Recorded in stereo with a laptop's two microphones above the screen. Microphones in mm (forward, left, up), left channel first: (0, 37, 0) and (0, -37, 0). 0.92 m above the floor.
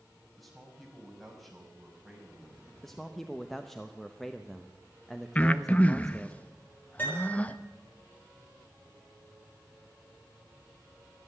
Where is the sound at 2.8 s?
5° left (ahead or behind), 0.6 m.